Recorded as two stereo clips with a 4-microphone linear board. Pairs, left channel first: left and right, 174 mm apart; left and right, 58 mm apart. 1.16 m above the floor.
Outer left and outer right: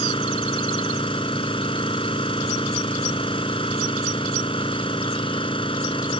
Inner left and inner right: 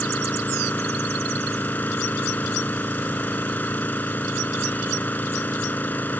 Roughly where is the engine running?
Left.